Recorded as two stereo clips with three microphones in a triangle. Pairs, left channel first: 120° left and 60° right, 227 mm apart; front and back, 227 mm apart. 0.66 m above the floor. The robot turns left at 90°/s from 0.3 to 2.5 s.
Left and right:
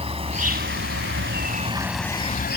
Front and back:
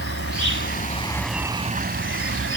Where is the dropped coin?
I don't hear a dropped coin.